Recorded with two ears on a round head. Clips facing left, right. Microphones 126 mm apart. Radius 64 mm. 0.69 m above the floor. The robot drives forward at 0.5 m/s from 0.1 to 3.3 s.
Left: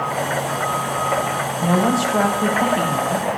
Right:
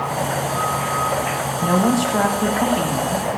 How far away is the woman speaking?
About 1.0 m.